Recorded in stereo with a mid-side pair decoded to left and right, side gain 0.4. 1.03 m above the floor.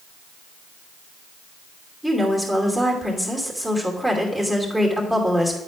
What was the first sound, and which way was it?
A woman speaking, 5° right.